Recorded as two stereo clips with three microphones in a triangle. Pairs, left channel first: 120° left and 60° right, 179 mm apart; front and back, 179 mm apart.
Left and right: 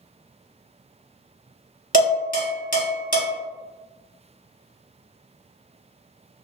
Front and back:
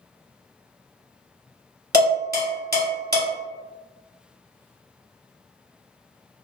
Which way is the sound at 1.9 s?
155° left.